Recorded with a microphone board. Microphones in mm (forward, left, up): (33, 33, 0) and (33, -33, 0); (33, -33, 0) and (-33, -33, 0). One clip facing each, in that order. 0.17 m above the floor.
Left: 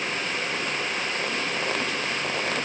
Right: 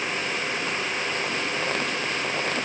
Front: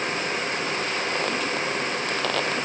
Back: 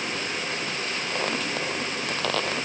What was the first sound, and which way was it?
Only background noise.